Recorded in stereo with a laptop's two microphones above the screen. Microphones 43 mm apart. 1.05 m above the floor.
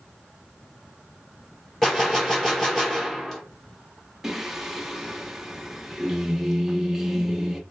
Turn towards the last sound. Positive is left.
turn(degrees=-5)  # may be behind; listen again after turning